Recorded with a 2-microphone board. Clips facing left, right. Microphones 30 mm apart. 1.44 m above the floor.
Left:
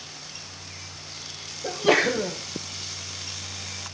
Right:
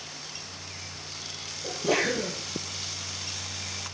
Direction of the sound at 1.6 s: 50° left (ahead or behind).